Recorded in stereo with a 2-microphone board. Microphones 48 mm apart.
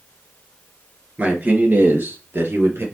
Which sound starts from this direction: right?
A man speaking, at 1.2 s.